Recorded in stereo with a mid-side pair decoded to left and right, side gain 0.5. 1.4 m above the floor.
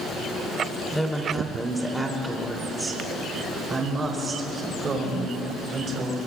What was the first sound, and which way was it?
A woman speaking, straight ahead.